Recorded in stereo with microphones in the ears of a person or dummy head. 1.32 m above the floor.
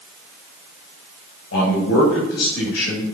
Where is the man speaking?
85° left, 7.5 m.